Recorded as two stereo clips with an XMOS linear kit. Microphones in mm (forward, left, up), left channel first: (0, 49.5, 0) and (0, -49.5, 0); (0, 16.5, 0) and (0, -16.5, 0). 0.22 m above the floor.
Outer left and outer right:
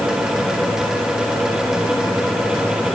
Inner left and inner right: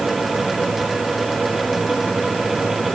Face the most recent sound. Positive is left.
No sound to turn to.